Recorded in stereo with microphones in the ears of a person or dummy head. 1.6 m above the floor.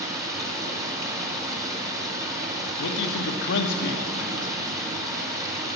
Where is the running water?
20° right (ahead or behind), 1.0 m.